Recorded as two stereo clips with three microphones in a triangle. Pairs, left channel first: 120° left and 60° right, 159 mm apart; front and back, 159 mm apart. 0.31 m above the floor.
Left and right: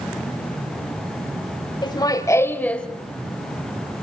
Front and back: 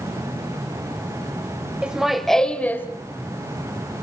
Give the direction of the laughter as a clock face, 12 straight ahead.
9 o'clock.